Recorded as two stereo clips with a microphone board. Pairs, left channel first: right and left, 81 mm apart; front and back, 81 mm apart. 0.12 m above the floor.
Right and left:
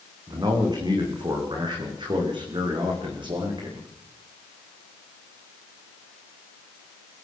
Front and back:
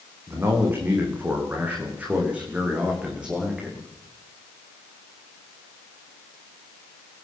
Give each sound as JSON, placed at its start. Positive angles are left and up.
{"t": 0.3, "sound": "a man speaking", "azimuth_deg": 120, "distance_m": 10.0}